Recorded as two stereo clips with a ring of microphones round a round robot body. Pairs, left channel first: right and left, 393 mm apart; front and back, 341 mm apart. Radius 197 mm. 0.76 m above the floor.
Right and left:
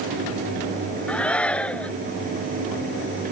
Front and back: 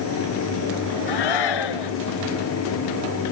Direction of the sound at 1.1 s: 5° right.